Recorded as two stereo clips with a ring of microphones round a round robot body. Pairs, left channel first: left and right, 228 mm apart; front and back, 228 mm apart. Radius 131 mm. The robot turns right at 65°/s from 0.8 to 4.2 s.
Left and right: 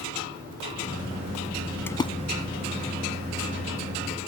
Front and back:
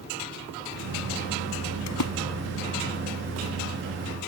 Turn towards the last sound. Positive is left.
turn(degrees=160)